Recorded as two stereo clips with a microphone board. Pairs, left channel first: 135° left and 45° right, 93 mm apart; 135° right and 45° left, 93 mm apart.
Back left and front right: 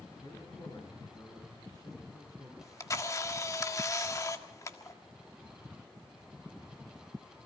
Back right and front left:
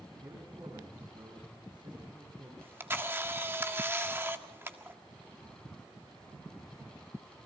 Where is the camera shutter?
100° left, 1.6 m.